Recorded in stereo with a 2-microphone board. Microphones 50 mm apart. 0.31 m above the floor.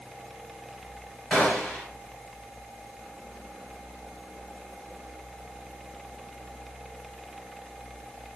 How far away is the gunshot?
About 1.6 m.